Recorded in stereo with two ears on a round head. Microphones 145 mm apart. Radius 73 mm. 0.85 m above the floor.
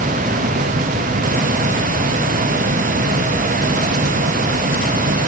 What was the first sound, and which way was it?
Only background noise.